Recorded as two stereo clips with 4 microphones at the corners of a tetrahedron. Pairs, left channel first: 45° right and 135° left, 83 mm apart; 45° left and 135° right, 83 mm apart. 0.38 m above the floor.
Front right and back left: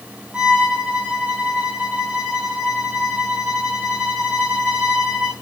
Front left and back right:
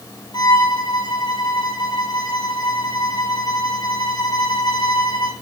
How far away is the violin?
About 4 m.